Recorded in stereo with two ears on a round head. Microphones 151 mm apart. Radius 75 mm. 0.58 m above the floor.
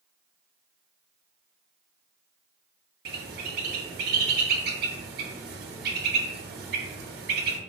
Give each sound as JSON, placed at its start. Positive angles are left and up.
{"t": 3.0, "sound": "a bird", "side_deg": -60, "distance_m": 0.7}